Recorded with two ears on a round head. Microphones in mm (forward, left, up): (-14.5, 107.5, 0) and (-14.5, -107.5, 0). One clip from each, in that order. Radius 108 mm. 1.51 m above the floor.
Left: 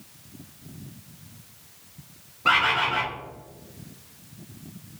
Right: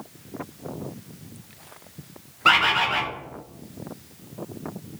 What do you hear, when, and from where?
2.5 s a bird: 30° right (ahead or behind), 0.6 m